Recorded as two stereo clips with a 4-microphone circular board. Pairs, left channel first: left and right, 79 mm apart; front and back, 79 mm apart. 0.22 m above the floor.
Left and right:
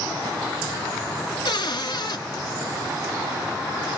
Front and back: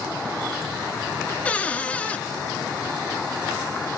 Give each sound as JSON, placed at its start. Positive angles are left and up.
{"t": 1.4, "sound": "a cupboard door", "azimuth_deg": 70, "distance_m": 0.7}